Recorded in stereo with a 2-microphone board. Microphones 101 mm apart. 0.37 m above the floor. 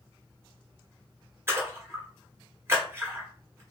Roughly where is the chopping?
No chopping in this recording.